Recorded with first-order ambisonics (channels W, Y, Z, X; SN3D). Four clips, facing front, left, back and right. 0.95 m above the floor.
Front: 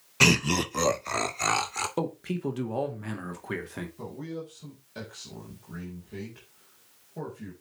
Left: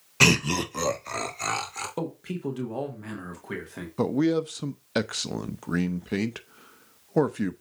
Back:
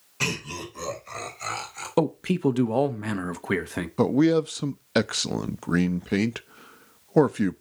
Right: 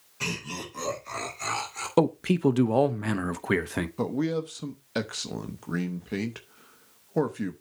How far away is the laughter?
About 0.6 m.